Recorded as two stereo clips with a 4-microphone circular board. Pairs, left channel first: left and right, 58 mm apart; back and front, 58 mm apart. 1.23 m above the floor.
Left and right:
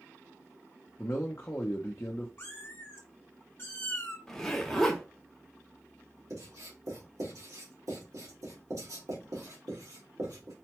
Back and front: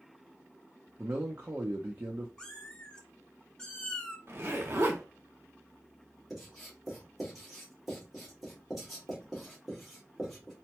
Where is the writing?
90° right, 1.8 m.